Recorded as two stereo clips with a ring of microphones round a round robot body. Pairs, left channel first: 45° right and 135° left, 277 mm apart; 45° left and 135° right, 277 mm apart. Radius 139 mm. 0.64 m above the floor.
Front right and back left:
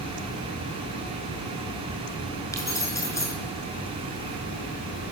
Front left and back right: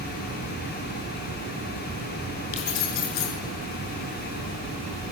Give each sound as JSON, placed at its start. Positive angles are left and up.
{"t": 2.5, "sound": "keys jangling", "azimuth_deg": 35, "distance_m": 6.5}